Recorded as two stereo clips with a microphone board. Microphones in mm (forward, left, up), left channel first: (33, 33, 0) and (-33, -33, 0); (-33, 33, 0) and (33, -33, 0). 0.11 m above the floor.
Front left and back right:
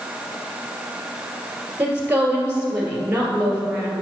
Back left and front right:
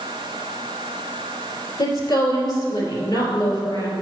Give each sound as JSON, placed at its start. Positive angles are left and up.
{"t": 1.8, "sound": "a woman speaking", "azimuth_deg": 155, "distance_m": 2.5}